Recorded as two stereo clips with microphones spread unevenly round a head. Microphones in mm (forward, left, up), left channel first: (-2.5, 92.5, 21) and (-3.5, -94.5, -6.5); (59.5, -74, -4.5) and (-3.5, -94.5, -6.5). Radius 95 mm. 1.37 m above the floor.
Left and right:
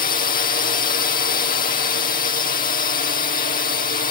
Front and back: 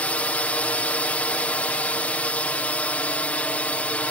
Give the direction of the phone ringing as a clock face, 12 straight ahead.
I don't hear a phone ringing.